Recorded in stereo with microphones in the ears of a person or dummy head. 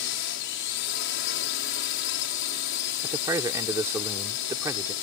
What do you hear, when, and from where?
0.0 s a drone: 65° left (ahead or behind)
3.0 s a man speaking: 15° right (ahead or behind)